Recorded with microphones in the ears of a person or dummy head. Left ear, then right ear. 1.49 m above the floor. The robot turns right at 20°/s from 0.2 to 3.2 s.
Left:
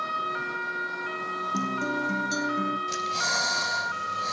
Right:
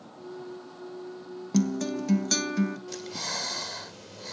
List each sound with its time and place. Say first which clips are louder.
1.5 s a guitar: right 1 dB; 70° right (ahead or behind), 1.3 m; by 2.8 s 75° right (ahead or behind), 1.3 m
2.9 s breathing: left 7 dB; 15° left (ahead or behind), 0.5 m; by 4.3 s 10° left (ahead or behind), 0.5 m